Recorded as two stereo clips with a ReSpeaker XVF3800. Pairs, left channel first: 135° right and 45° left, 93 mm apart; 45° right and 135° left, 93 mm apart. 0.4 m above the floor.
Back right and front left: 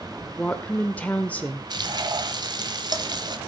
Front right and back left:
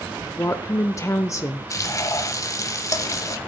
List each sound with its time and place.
0.4 s a woman speaking: 70° right, 0.9 m
1.7 s frying: 5° left, 1.1 m